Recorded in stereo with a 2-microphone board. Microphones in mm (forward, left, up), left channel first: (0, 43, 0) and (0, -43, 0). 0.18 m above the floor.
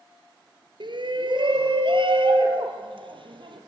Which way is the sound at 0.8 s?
65° right (ahead or behind).